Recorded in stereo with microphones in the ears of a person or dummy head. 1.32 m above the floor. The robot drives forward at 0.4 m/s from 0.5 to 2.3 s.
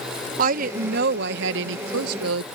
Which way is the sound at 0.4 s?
55° right (ahead or behind).